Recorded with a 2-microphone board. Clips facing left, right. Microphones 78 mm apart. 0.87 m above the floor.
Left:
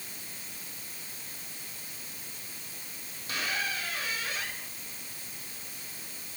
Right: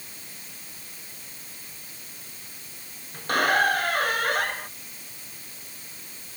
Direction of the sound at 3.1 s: 55° right (ahead or behind).